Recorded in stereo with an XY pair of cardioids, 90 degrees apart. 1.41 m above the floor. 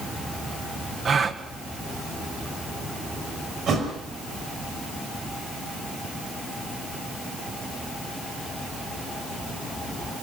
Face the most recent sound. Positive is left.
turn(degrees=-70)